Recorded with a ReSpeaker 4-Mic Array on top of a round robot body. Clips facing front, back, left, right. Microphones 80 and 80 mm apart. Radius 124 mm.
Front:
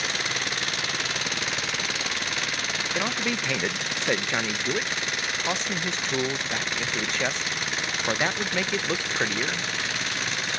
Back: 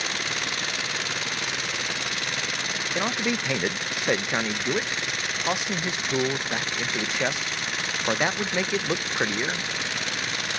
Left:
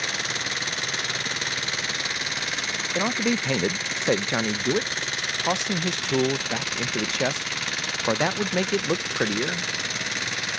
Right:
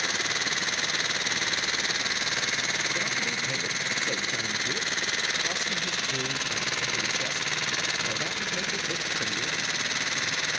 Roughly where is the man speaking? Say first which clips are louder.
Back 2 dB, left 7 dB; left.